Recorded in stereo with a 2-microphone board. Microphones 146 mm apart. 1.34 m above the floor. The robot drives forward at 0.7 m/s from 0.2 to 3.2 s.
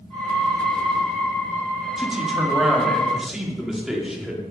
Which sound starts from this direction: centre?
A man speaking, at 2.0 s.